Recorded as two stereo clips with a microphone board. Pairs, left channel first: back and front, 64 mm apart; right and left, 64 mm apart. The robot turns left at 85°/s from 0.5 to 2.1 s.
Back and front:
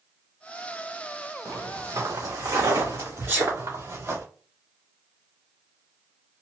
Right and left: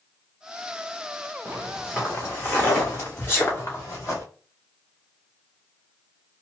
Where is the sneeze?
45° right, 2.5 m.